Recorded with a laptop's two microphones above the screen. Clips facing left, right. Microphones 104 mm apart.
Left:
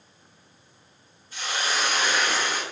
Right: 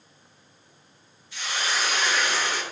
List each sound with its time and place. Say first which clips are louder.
1.3 s a hiss: left 1 dB; 40° left (ahead or behind), 1.1 m